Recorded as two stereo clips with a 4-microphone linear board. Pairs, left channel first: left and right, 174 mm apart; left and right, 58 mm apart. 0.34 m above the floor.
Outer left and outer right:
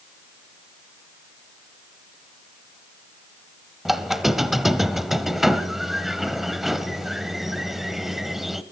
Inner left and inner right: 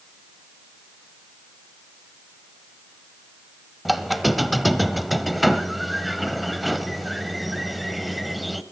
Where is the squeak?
Centre (ahead or behind), 0.8 m.